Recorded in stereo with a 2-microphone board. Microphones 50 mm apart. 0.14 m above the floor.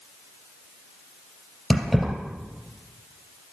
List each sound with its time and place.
1.7 s keys jangling: centre (ahead or behind), 3 m